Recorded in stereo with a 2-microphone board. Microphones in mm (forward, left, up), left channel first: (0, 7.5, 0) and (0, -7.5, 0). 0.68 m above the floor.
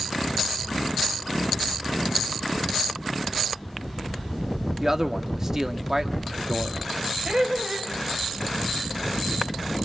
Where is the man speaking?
30° right (ahead or behind), 1.6 m.